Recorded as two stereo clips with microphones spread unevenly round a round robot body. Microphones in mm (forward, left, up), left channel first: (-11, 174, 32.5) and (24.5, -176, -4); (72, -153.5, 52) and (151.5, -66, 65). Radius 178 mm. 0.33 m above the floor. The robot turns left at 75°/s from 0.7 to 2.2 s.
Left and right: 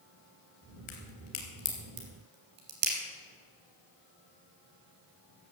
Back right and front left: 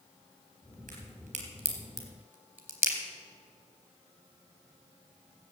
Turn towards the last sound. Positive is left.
turn(degrees=-25)